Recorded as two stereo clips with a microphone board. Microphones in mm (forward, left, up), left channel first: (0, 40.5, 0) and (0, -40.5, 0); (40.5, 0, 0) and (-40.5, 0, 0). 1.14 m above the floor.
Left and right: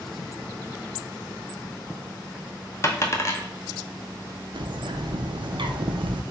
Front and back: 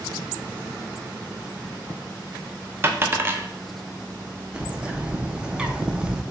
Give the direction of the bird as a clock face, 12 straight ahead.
3 o'clock.